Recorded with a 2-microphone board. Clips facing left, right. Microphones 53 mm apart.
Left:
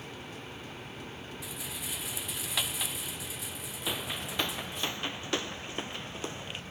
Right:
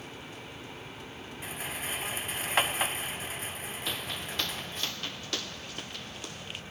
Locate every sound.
1.4 s a rattle: 40° right (ahead or behind)
3.9 s footsteps: 10° left (ahead or behind); by 6.6 s 25° left (ahead or behind)